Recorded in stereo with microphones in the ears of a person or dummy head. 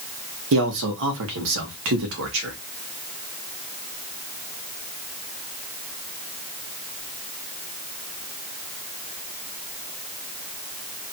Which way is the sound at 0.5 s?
60° right (ahead or behind).